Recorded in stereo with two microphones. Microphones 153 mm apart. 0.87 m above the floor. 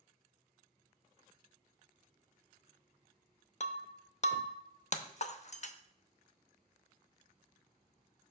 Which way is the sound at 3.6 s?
45° left (ahead or behind).